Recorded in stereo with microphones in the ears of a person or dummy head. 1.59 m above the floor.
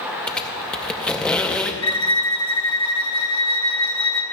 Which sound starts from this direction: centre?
A squeak, at 0.3 s.